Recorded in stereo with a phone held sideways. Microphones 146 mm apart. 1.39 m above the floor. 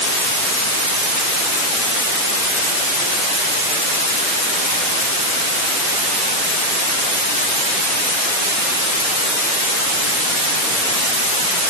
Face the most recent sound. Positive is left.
No sound to turn to.